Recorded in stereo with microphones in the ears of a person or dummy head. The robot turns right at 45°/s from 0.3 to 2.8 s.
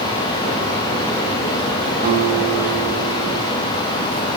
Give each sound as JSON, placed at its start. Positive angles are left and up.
{"t": 2.0, "sound": "a guitar", "azimuth_deg": -145, "distance_m": 7.5}